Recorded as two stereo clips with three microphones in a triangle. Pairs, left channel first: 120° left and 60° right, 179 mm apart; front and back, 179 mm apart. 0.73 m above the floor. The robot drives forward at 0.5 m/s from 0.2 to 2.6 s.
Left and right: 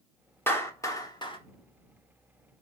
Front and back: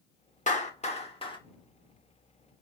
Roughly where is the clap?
Ahead left.